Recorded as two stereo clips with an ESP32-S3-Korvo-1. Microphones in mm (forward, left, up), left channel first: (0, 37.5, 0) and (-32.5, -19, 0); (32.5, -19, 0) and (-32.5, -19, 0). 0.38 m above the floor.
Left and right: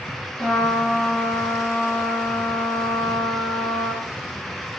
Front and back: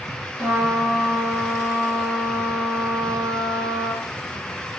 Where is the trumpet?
140° left, 1.5 m.